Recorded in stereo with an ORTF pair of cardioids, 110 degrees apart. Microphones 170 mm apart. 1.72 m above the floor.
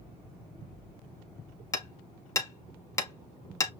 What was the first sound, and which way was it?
Hammering, 20° left.